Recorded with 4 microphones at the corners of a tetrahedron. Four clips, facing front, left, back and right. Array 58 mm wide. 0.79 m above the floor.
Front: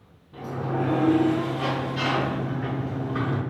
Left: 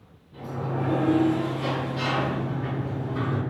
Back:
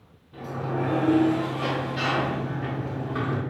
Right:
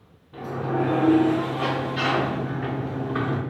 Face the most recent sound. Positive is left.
turn(degrees=-90)